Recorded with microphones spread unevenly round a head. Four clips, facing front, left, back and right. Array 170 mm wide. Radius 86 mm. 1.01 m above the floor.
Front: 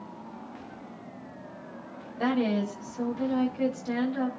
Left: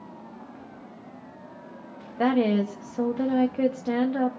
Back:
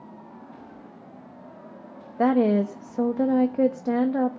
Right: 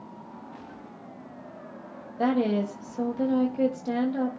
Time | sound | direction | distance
2.2 | a woman speaking | 165° left | 1.4 m